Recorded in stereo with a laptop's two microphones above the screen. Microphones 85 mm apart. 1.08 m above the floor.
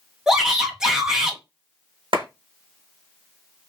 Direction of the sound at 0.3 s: 10° right (ahead or behind).